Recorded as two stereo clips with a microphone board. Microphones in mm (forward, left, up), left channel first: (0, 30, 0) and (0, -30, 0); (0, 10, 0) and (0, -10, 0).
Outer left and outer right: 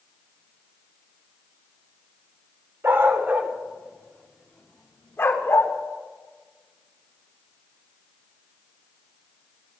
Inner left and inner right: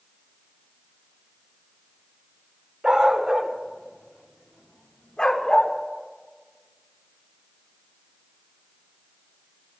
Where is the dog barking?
45° right (ahead or behind), 1.5 m; by 5.7 s 50° left (ahead or behind), 1.5 m.